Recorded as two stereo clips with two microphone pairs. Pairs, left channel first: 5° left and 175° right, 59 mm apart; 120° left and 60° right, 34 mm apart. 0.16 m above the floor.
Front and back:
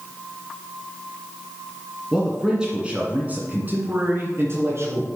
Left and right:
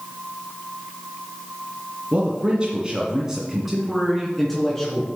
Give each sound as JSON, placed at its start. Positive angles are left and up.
{"t": 2.1, "sound": "a man speaking", "azimuth_deg": -90, "distance_m": 1.8}